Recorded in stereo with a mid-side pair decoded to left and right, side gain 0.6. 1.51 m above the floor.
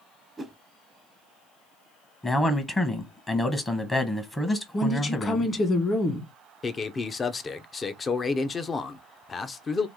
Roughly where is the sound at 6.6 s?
Ahead left.